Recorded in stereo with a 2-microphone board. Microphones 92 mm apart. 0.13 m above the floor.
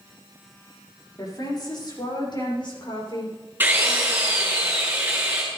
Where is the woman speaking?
45° left (ahead or behind), 4.5 m; by 3.4 s 60° left (ahead or behind), 7 m.